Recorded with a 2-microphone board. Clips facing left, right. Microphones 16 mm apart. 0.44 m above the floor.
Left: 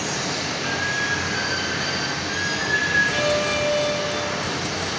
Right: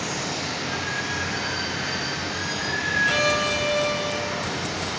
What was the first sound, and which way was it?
Running water, 70° left (ahead or behind).